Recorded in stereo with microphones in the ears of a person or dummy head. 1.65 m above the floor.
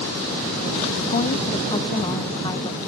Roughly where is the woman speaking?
Left.